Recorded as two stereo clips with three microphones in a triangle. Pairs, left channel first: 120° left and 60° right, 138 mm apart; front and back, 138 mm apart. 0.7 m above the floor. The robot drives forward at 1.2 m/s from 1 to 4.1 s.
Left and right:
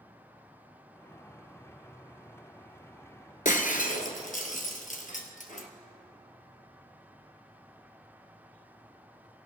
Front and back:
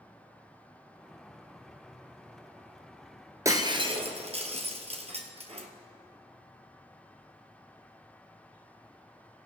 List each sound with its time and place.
3.5 s breaking glass: 115° left, 1.3 m; by 5.7 s 140° left, 1.7 m